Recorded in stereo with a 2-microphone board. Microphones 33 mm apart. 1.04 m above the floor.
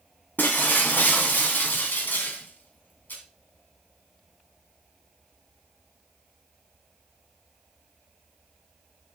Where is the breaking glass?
75° left (ahead or behind), 2.5 m.